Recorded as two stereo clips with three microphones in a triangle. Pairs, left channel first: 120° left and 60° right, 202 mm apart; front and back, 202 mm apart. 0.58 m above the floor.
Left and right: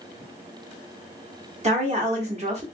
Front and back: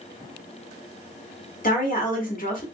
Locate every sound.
1.6 s a woman speaking: 20° right, 1.1 m